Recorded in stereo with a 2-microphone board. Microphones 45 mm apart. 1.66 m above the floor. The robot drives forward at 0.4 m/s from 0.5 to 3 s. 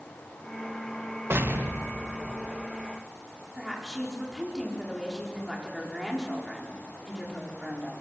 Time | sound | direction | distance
1.3 | an explosion | 60° right (ahead or behind) | 1.5 m
3.5 | a woman speaking | 5° right (ahead or behind) | 5.5 m